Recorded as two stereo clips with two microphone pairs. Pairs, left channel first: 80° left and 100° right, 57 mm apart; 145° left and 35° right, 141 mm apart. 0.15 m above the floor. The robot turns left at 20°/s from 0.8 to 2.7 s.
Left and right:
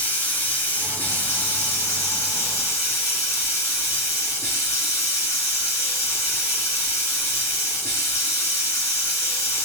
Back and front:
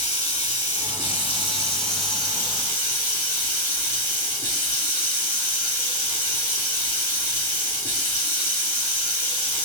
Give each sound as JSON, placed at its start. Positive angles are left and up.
{"t": 0.0, "sound": "running water", "azimuth_deg": 120, "distance_m": 2.0}